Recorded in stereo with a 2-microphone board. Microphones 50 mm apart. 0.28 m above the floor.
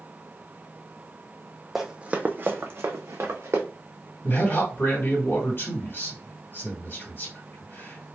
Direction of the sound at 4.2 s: 45° left (ahead or behind).